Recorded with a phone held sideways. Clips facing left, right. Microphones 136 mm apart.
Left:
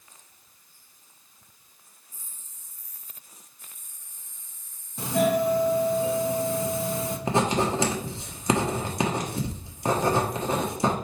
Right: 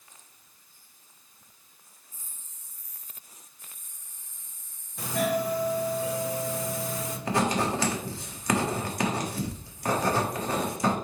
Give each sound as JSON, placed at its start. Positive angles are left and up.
{"t": 5.0, "sound": "a doorbell", "side_deg": 25, "distance_m": 1.0}
{"t": 7.3, "sound": "writing", "side_deg": 25, "distance_m": 1.2}